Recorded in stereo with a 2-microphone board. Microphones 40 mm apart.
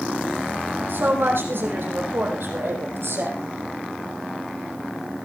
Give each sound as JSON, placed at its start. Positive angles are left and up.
{"t": 0.9, "sound": "a woman speaking", "side_deg": -65, "distance_m": 5.5}